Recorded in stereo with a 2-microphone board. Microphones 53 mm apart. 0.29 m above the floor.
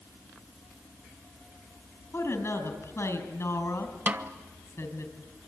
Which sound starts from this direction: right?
A snare drum, at 4.1 s.